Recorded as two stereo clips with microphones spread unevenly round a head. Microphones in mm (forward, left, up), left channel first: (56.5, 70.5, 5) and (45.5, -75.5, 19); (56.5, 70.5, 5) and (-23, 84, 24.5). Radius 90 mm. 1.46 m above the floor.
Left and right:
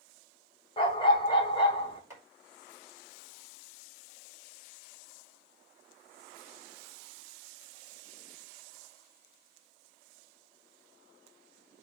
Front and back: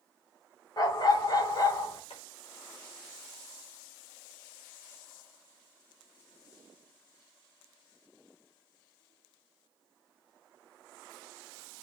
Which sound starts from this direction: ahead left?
A dog barking, at 0.8 s.